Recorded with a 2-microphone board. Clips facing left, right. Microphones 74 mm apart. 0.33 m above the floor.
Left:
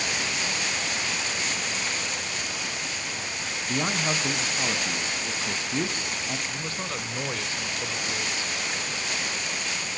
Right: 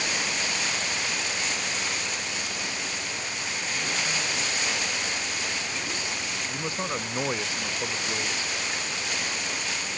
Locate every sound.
3.7 s a man speaking: 55° left (ahead or behind), 2.5 m
6.5 s a man speaking: 20° right (ahead or behind), 0.9 m